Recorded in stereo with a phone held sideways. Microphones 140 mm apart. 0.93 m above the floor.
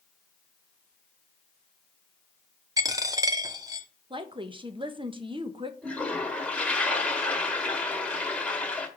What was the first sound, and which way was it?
A dropped coin, 25° right (ahead or behind).